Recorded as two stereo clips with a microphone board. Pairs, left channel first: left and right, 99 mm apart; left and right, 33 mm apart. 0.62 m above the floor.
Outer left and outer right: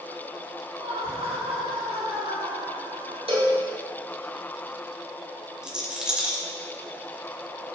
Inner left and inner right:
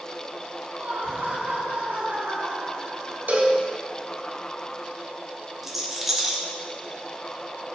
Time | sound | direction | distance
0.8 | laughter | 75° right (ahead or behind) | 4.5 m
3.3 | a cowbell | 70° right (ahead or behind) | 3.5 m
5.6 | a rattle | 10° right (ahead or behind) | 2.5 m